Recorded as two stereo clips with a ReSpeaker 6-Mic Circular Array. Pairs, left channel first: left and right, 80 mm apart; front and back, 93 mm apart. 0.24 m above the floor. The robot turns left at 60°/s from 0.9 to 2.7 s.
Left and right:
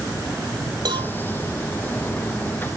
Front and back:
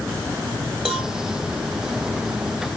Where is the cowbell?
90° right, 1.3 m; by 1.1 s 105° right, 1.3 m.